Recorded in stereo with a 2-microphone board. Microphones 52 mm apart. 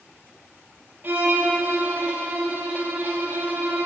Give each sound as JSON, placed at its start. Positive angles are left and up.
{"t": 1.0, "sound": "a violin", "side_deg": -45, "distance_m": 1.3}